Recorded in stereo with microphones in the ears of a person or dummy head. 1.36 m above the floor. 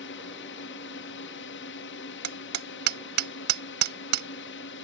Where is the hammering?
50° right (ahead or behind).